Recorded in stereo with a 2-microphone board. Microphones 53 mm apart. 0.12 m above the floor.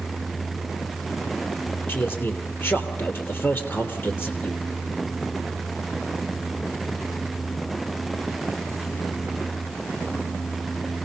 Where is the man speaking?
45° left (ahead or behind), 3 m.